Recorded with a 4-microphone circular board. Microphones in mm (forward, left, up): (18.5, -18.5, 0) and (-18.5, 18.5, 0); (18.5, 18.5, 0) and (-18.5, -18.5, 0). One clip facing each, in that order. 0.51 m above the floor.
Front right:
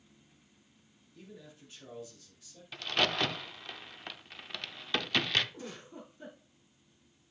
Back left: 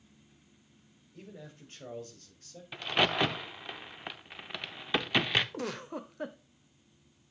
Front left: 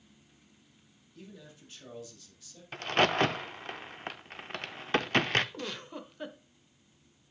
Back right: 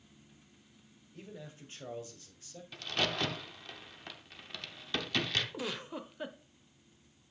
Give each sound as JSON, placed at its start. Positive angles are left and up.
{"t": 1.1, "sound": "a man speaking", "azimuth_deg": 170, "distance_m": 2.5}
{"t": 2.7, "sound": "a crack", "azimuth_deg": 65, "distance_m": 0.6}
{"t": 5.5, "sound": "a giggle", "azimuth_deg": 135, "distance_m": 0.8}